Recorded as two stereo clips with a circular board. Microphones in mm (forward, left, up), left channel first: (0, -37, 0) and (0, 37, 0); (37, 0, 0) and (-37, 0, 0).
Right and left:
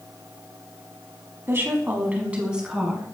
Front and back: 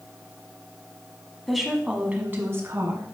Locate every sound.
1.5 s a woman speaking: 85° left, 1.3 m; by 3.0 s 175° left, 1.6 m